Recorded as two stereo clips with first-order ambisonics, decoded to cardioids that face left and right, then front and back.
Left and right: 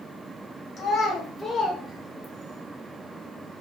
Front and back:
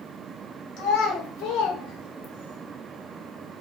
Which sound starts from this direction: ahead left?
A child speaking, at 0.8 s.